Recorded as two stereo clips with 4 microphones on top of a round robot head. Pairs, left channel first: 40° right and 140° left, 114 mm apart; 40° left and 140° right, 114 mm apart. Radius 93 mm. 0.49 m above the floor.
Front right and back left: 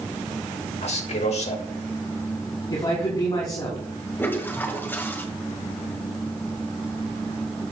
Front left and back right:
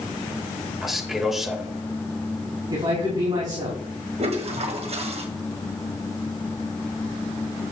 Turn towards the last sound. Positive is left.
turn(degrees=-110)